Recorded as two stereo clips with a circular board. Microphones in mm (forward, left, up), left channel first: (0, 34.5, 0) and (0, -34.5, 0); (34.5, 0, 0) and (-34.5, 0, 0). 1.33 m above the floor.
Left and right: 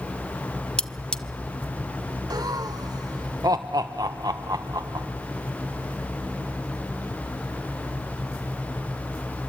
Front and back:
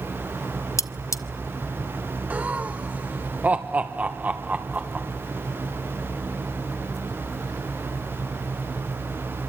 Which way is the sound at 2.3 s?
115° right.